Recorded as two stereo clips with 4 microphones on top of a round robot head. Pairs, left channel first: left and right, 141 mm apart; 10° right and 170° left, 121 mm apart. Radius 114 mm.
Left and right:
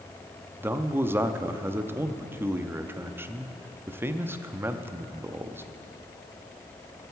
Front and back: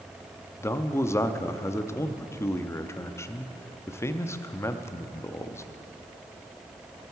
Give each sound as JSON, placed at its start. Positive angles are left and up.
{"t": 0.6, "sound": "a man speaking", "azimuth_deg": -40, "distance_m": 0.6}